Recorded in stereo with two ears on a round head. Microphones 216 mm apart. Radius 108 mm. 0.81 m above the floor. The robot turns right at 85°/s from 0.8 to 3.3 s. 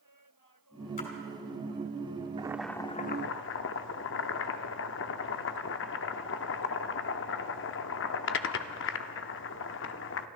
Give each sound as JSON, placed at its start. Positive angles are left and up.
{"t": 1.0, "sound": "a splash", "side_deg": 35, "distance_m": 3.0}
{"t": 2.4, "sound": "boiling", "azimuth_deg": -20, "distance_m": 0.6}